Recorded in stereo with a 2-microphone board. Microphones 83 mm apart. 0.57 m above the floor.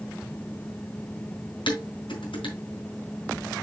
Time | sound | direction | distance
1.7 | dishes clattering | 85° left | 3.5 m